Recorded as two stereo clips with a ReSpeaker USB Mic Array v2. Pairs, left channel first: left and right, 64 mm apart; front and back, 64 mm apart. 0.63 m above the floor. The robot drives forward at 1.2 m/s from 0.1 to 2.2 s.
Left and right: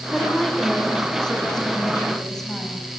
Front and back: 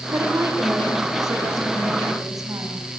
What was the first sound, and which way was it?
A woman speaking, 165° left.